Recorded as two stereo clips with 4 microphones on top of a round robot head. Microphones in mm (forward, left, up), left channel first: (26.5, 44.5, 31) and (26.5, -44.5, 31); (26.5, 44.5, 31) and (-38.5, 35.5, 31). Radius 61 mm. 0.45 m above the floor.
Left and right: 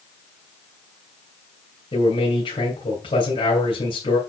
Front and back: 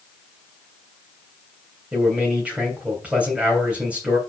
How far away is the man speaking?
About 3 m.